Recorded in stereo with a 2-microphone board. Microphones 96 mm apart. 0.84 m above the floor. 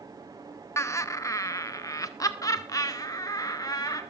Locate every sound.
0.8 s laughter: 30° left (ahead or behind), 0.7 m; by 4.0 s 40° left (ahead or behind), 2.5 m